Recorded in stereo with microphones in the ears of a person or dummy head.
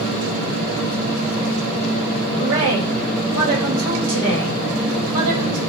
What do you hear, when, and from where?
2.4 s a woman speaking: 90° right, 1.5 m